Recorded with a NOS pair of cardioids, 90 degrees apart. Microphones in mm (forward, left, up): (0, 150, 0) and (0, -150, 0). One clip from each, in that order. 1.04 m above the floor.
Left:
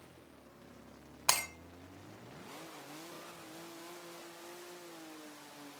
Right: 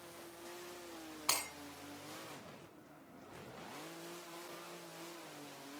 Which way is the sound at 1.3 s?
55° left.